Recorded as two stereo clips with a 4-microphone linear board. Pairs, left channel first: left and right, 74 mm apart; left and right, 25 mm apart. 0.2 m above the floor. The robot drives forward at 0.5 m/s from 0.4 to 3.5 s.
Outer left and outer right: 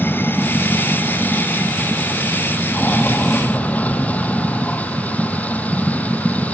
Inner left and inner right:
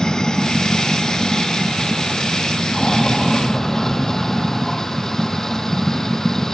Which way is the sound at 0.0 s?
30° left (ahead or behind).